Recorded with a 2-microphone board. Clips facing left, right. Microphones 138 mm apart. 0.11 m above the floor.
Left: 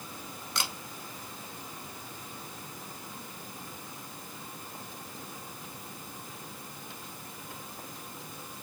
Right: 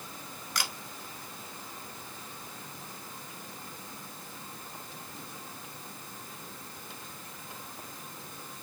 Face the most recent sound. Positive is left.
turn(degrees=25)  # may be behind; listen again after turning